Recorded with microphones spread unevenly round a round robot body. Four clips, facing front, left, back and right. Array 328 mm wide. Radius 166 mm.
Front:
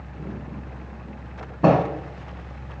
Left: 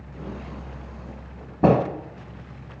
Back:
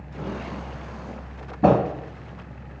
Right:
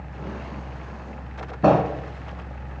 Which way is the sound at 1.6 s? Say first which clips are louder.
Right 1 dB, even; 115° left.